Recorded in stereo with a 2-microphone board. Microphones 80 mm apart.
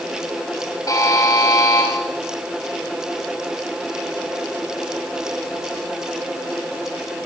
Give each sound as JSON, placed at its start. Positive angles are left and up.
{"t": 0.9, "sound": "a buzzer", "side_deg": 45, "distance_m": 5.0}